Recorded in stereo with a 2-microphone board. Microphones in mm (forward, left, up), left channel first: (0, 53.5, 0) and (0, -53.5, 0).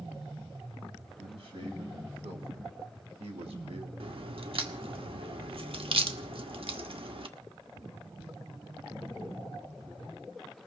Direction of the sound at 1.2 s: 60° right (ahead or behind).